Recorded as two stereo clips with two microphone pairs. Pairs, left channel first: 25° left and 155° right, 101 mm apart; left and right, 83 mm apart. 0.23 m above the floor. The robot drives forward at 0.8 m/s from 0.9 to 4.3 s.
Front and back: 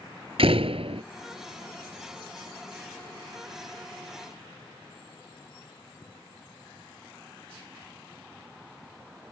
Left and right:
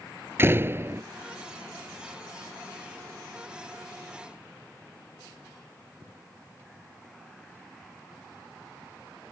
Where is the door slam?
150° right.